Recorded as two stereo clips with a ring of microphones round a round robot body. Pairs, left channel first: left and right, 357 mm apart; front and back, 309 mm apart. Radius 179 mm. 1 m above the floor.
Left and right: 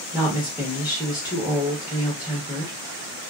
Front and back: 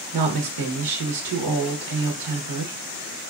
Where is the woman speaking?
175° right, 0.9 m.